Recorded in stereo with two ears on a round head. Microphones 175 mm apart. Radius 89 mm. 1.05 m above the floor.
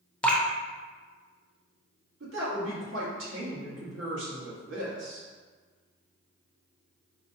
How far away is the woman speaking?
About 1.6 m.